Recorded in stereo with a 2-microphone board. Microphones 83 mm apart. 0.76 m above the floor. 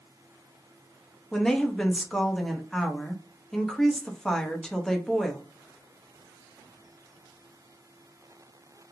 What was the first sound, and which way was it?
A woman speaking, 5° left (ahead or behind).